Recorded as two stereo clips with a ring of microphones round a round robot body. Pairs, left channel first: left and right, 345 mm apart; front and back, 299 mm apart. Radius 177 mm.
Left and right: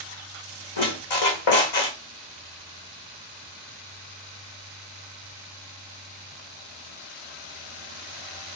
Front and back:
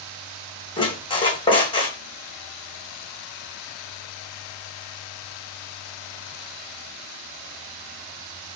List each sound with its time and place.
0.8 s a squeak: 75° left, 1.7 m